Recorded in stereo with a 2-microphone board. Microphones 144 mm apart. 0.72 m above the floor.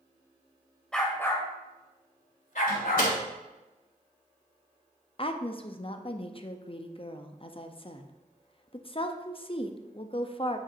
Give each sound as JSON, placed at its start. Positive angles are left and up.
{"t": 0.9, "sound": "a dog barking", "side_deg": 5, "distance_m": 1.3}
{"t": 2.7, "sound": "a door slam", "side_deg": 80, "distance_m": 2.0}
{"t": 5.2, "sound": "a woman speaking", "side_deg": 40, "distance_m": 0.5}